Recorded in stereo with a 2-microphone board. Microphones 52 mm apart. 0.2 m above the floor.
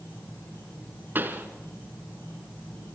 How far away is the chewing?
No chewing in this recording.